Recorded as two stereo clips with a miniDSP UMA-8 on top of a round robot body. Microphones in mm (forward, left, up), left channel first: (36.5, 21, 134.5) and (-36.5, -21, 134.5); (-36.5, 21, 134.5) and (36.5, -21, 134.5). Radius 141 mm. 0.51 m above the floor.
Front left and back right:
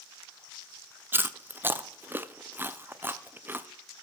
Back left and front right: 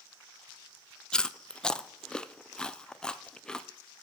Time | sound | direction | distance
1.1 | chewing | 140° right | 0.5 m